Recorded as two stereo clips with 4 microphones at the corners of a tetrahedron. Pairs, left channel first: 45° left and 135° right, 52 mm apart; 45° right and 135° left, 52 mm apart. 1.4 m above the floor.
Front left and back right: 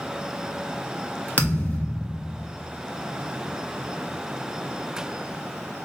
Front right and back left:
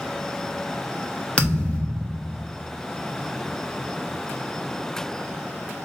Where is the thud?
15° left, 0.9 m.